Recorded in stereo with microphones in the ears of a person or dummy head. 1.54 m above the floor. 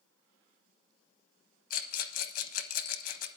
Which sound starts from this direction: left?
A rattle, at 1.7 s.